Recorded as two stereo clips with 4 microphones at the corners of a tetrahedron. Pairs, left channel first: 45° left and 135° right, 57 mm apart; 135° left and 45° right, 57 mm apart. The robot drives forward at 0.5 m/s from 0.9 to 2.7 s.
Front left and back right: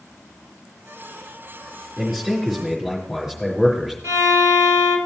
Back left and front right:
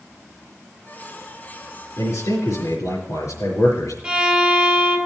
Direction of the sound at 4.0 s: 115° right.